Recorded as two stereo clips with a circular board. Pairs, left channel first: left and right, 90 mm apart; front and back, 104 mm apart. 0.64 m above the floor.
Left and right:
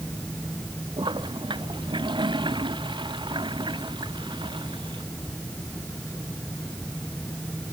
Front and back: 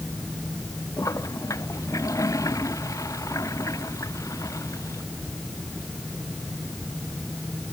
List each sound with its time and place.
1.0 s a toilet flushing: 60° right